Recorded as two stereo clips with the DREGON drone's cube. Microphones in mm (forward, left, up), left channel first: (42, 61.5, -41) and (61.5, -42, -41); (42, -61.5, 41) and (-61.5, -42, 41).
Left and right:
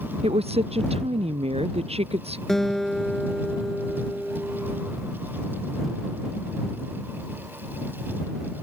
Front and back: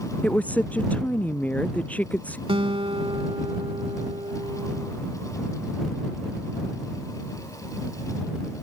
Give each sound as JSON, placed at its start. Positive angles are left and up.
{"t": 0.2, "sound": "a woman speaking", "azimuth_deg": -85}
{"t": 2.5, "sound": "a guitar", "azimuth_deg": -175}